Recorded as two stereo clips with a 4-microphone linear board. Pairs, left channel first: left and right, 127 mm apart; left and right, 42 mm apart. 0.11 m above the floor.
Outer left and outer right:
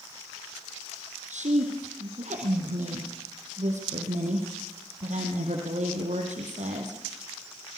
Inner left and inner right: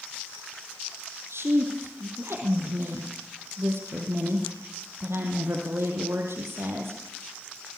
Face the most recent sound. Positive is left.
turn(degrees=-70)  # may be behind; listen again after turning